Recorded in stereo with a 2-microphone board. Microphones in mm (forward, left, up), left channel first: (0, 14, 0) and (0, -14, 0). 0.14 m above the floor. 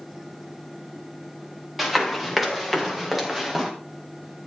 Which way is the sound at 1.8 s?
10° right (ahead or behind).